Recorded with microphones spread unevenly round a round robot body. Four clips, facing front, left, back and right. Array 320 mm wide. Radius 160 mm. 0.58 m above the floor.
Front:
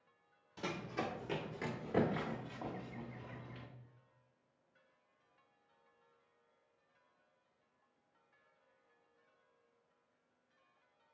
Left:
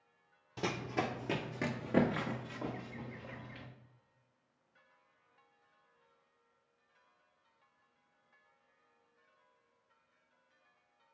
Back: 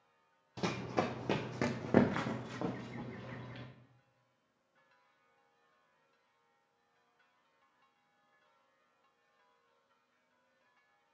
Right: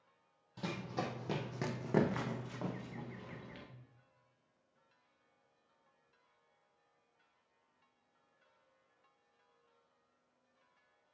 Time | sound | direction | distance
0.6 | running footsteps | 150° left | 1.0 m